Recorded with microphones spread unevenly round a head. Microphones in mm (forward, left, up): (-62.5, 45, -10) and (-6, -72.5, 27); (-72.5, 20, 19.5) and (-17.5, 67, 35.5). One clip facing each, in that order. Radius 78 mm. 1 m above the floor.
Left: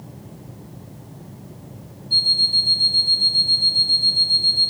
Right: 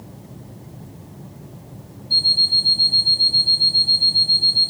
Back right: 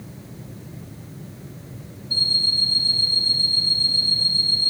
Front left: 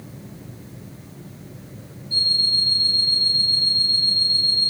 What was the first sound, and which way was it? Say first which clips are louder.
An alarm clock: right 2 dB, front left 1 dB; 85° right.